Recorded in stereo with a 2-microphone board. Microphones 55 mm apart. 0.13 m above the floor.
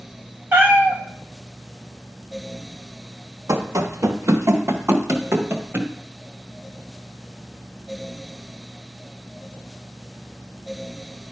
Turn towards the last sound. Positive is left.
turn(degrees=-50)  # may be behind; listen again after turning